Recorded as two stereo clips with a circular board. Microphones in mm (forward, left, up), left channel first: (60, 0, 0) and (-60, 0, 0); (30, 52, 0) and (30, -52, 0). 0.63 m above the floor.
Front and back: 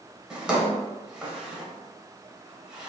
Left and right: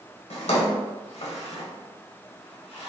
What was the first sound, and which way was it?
A drawer, 95° left.